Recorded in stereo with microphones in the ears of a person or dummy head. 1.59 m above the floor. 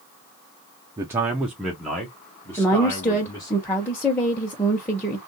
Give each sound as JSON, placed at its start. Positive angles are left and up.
{"t": 1.0, "sound": "a man speaking", "side_deg": -20, "distance_m": 0.7}
{"t": 2.6, "sound": "a woman speaking", "side_deg": 10, "distance_m": 1.1}